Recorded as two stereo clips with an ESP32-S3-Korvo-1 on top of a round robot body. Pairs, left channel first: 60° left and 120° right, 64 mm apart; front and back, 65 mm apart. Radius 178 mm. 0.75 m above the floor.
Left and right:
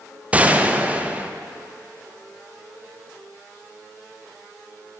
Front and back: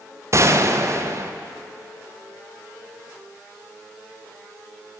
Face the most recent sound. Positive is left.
turn(degrees=180)